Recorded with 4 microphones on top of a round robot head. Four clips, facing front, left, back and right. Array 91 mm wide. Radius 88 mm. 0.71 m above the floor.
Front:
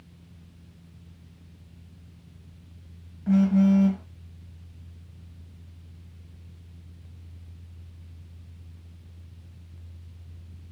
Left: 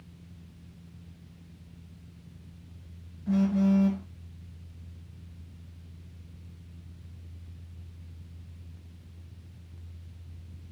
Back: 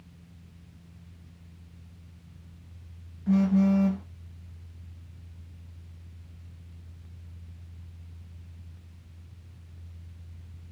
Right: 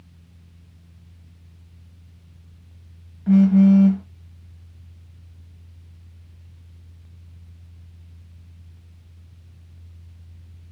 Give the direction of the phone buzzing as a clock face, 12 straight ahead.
2 o'clock.